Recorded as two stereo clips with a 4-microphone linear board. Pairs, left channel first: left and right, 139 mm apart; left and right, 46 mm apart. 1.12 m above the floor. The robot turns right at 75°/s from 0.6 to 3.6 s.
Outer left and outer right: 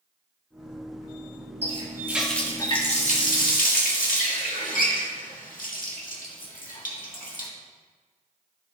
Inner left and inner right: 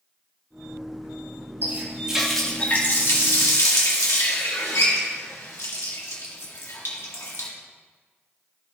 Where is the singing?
I don't hear singing.